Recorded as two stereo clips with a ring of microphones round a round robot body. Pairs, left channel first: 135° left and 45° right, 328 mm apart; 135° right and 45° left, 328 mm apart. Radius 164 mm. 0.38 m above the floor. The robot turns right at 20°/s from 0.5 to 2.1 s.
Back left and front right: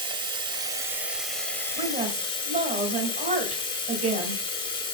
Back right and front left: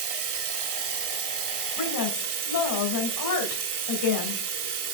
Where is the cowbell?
I don't hear a cowbell.